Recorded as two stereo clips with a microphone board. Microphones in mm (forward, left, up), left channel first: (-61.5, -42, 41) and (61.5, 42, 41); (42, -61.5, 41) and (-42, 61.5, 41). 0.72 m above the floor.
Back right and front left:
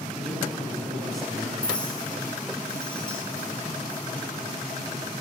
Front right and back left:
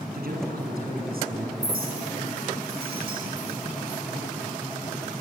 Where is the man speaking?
125° left, 7 m.